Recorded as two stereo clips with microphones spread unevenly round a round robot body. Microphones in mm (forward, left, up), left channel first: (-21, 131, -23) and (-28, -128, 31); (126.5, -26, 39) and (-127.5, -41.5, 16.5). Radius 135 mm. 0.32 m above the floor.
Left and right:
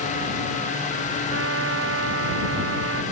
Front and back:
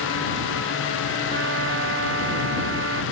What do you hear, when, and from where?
1.3 s a trumpet: 135° right